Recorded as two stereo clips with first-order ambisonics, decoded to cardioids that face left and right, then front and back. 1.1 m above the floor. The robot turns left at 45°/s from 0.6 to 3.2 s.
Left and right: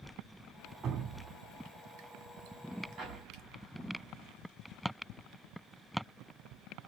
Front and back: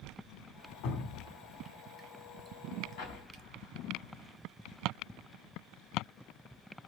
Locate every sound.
0.8 s dripping: 25° right, 1.7 m; by 3.4 s 130° right, 1.7 m
3.0 s an explosion: 35° right, 4 m; by 4.4 s 45° right, 4 m